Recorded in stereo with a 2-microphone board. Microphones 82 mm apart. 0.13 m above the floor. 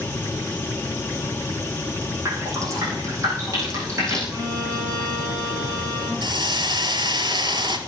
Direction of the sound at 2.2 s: 40° right (ahead or behind).